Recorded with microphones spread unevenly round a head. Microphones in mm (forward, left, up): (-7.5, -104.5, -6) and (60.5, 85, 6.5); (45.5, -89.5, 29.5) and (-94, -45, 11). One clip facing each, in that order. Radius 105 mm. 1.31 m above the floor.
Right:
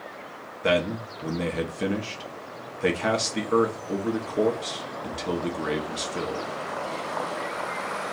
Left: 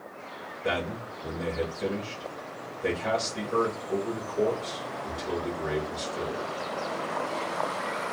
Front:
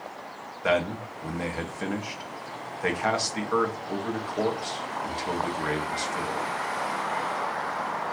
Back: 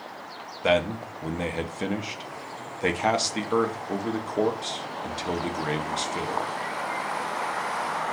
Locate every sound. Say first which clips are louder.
0.6 s a man speaking: right 7 dB, back 2 dB; 135° right, 0.8 m